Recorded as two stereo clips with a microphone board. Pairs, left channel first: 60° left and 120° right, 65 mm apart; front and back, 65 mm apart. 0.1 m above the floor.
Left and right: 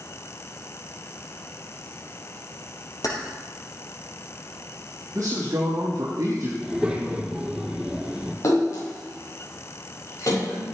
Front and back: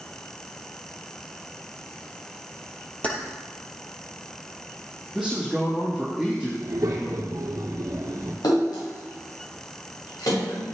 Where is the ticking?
No ticking in this recording.